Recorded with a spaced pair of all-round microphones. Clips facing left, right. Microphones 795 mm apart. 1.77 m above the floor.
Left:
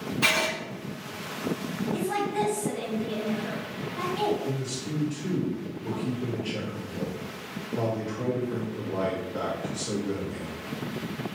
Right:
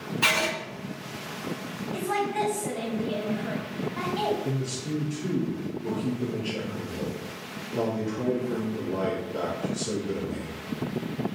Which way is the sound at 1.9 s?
65° right (ahead or behind).